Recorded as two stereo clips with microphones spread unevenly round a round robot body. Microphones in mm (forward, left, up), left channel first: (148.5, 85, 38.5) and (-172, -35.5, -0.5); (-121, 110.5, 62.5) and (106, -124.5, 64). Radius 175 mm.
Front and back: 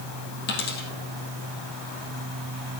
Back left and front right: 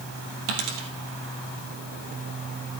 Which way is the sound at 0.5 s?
40° right.